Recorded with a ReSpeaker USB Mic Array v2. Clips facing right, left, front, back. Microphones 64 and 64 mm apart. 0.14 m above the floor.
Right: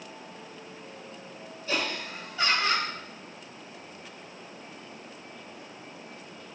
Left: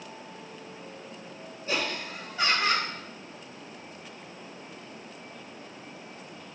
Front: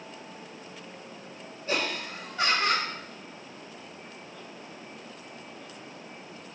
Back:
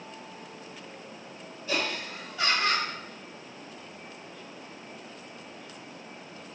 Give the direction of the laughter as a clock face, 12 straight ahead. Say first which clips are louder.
Even, front 1 dB; 11 o'clock.